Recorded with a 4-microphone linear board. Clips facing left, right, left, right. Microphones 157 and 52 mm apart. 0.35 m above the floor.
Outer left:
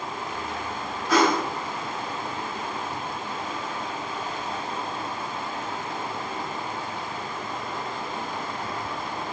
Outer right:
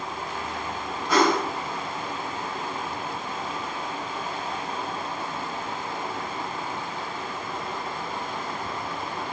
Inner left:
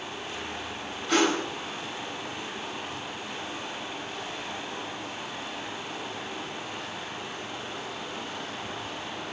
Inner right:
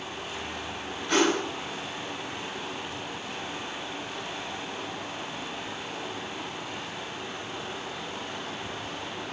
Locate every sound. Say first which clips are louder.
1.1 s a whoosh: even, even; centre (ahead or behind), 1.0 m